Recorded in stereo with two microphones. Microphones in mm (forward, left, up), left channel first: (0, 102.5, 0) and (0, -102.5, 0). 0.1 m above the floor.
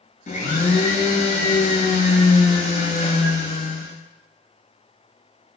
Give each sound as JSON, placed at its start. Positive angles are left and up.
{"t": 0.3, "sound": "a blender", "side_deg": 40, "distance_m": 0.8}